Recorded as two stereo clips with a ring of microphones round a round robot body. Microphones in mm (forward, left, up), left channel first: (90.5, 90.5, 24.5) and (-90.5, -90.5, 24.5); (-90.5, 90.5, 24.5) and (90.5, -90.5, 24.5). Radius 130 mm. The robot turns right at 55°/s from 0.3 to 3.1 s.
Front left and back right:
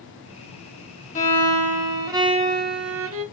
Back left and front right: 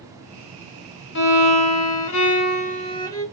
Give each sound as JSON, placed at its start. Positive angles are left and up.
{"t": 1.1, "sound": "a violin", "azimuth_deg": 100, "distance_m": 0.6}